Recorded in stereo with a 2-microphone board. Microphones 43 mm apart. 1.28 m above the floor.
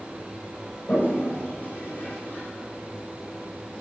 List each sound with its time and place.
0.9 s a toilet flushing: 45° left (ahead or behind), 7.5 m